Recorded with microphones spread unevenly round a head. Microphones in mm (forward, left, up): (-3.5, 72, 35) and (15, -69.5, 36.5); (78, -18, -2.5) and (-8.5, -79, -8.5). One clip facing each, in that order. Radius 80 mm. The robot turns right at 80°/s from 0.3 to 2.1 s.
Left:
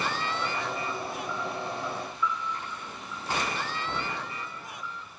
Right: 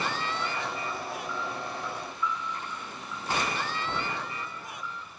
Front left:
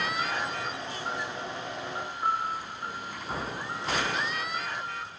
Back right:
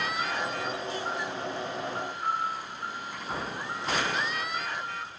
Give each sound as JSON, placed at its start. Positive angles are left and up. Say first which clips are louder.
{"t": 2.2, "sound": "a piano", "louder": "left 1 dB, front left 3 dB", "azimuth_deg": 85, "distance_m": 0.8}